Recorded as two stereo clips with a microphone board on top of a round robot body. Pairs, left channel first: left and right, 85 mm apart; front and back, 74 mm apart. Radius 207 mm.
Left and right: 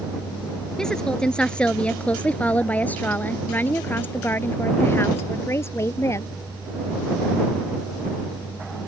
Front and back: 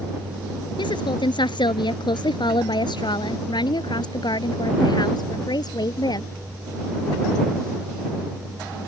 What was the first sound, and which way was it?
A woman speaking, 5° left.